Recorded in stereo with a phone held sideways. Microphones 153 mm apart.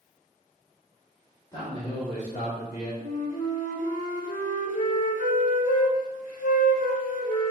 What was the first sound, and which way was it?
A man speaking, 30° left (ahead or behind).